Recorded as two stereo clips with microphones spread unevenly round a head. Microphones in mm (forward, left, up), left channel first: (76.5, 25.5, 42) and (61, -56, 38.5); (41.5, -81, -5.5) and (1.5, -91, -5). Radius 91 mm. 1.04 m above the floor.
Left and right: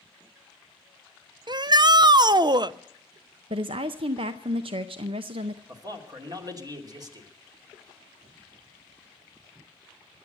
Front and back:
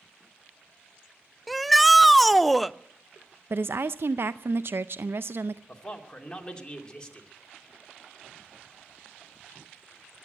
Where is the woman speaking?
130° right, 0.5 m.